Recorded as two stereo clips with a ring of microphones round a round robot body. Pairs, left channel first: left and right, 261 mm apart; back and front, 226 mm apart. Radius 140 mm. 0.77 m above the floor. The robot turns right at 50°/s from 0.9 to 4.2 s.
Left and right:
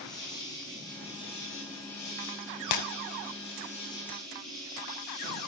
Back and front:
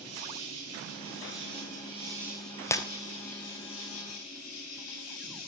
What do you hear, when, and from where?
0.0 s an insect: 15° left, 8.5 m; by 5.5 s straight behind, 8.5 m
2.7 s breaking glass: 100° left, 1.4 m; by 2.8 s 110° left, 1.4 m